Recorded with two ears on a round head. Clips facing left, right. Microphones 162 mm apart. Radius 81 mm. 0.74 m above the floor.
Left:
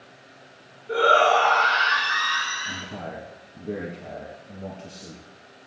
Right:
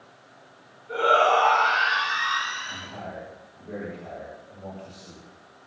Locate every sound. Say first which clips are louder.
0.9 s a shout: left 2 dB; 55° left (ahead or behind), 8 m; by 2.9 s 60° left (ahead or behind), 10 m
2.6 s a man speaking: left 3 dB; 60° left (ahead or behind), 6 m